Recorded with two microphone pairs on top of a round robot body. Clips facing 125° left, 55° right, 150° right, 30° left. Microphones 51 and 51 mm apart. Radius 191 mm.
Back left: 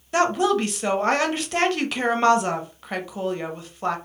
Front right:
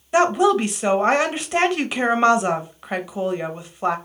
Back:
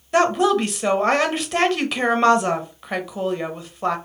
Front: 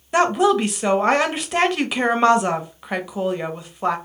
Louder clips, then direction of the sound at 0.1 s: Front right 4 dB, front 1 dB; 25° right.